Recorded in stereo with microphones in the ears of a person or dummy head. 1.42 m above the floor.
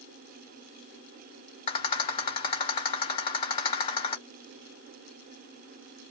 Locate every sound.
1.7 s a rattle: 40° left (ahead or behind), 1.3 m